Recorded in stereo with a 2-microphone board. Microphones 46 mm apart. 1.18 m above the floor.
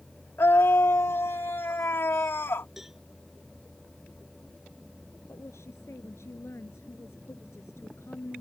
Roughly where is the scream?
Left.